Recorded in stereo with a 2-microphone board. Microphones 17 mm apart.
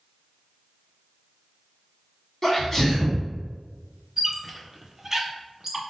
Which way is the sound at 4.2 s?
25° right (ahead or behind).